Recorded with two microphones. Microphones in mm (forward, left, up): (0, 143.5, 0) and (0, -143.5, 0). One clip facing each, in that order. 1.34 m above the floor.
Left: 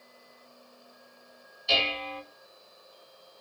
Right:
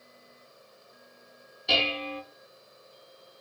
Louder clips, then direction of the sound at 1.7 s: Right 2 dB; 65° right (ahead or behind).